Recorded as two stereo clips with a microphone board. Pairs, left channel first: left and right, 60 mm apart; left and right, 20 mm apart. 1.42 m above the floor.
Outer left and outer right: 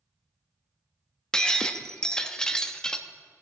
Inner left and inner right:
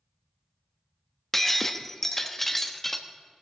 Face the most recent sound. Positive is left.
turn(degrees=10)  # may be behind; listen again after turning